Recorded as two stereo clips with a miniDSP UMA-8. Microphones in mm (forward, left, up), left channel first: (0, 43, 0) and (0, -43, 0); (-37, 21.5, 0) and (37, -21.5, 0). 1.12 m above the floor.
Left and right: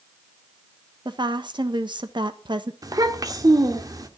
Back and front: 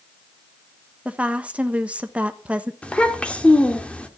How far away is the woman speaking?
About 1.4 m.